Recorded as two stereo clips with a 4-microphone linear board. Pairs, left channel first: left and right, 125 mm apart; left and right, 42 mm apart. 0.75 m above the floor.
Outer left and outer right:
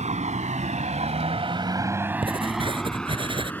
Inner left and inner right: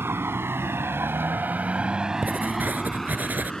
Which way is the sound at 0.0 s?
75° right (ahead or behind).